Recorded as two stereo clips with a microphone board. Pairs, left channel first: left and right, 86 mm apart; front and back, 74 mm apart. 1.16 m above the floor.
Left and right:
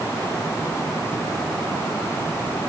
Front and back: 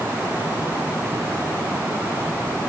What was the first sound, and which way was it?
Only background noise.